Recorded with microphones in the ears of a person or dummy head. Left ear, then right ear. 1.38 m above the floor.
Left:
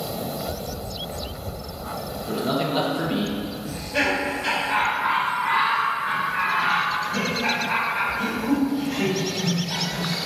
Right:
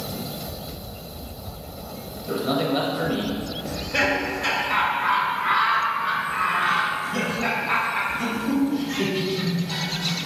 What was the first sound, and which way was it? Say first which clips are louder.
A man speaking: right 1 dB; centre (ahead or behind).